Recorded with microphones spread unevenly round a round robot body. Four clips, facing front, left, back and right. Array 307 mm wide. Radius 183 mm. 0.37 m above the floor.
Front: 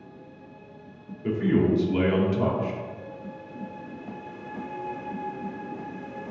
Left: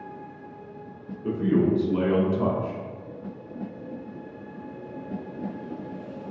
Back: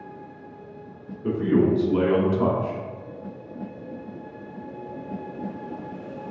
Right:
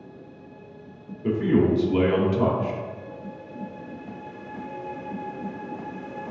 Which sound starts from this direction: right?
A man speaking, at 1.2 s.